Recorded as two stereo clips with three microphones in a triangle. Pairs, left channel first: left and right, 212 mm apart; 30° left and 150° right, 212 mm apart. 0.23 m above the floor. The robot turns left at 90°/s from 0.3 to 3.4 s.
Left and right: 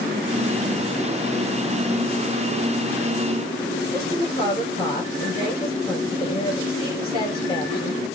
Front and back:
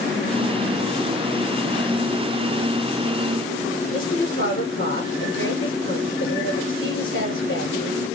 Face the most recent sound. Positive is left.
turn(degrees=25)